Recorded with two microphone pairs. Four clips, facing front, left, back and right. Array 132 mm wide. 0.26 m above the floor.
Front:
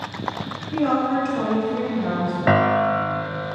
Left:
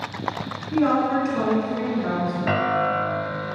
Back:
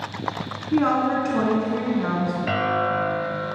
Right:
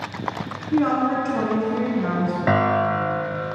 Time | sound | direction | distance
0.7 | a woman speaking | 160° right | 3 m
2.5 | a piano | 20° right | 0.9 m